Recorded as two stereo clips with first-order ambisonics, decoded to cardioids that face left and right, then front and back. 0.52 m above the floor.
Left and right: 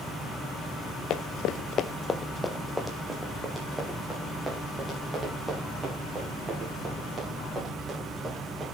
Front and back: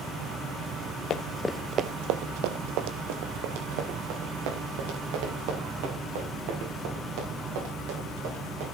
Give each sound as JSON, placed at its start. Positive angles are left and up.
{"t": 1.1, "sound": "running footsteps", "azimuth_deg": 50, "distance_m": 1.0}